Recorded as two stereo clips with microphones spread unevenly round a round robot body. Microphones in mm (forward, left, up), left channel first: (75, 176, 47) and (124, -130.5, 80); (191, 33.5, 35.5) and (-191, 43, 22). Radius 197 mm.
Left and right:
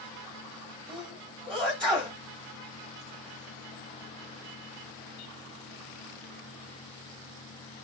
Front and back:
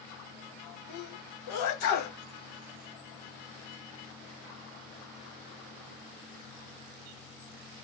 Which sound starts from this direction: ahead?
A sneeze, at 0.9 s.